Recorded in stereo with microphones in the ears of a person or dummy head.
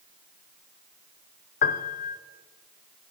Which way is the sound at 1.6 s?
40° left (ahead or behind).